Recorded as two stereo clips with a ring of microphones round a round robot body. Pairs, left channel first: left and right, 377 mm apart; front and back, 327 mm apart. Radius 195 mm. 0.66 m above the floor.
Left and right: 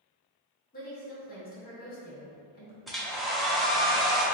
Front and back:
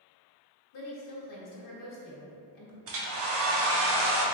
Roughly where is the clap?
No clap in this recording.